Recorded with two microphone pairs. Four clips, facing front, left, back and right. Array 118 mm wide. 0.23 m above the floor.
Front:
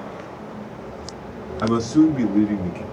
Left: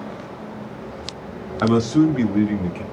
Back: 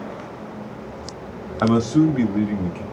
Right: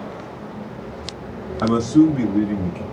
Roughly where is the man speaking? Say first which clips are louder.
Right 2 dB, even; behind.